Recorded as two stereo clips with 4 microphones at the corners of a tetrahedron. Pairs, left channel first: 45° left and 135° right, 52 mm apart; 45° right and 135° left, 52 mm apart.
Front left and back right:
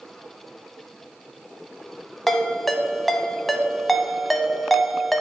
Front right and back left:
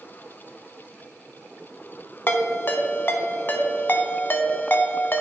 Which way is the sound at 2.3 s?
40° right.